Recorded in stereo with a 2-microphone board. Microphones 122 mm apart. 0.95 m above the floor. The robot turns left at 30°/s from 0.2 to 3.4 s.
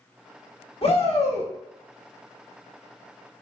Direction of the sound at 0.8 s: 50° left (ahead or behind).